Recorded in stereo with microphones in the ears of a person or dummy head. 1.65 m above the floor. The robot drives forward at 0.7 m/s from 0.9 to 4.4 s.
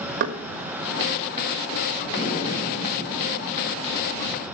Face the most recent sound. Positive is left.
turn(degrees=25)  # may be behind; listen again after turning